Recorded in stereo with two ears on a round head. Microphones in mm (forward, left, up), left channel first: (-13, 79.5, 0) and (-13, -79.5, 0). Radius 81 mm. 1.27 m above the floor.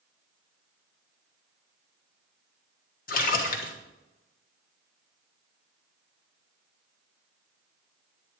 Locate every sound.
3.1 s a splash: 55° left (ahead or behind), 1.4 m